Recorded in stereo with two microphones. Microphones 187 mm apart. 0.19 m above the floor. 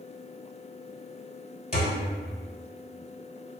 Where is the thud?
35° left (ahead or behind), 1.1 m.